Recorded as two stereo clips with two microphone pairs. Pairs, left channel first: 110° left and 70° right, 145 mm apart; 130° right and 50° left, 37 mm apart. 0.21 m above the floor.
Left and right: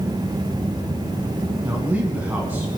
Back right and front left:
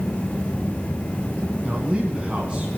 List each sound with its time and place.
1.6 s a man speaking: straight ahead, 2.5 m